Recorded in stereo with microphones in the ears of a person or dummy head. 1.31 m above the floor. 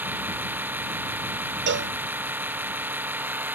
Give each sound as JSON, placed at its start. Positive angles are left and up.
{"t": 0.0, "sound": "a machine running", "side_deg": -20}
{"t": 1.7, "sound": "a cowbell", "side_deg": -60}